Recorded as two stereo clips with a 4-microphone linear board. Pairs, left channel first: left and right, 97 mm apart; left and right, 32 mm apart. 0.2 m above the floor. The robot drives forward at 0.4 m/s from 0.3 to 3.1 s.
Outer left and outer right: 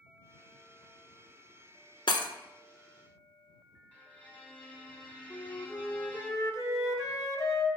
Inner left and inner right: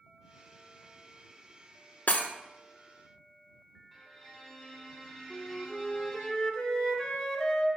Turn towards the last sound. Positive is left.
turn(degrees=40)  # may be behind; listen again after turning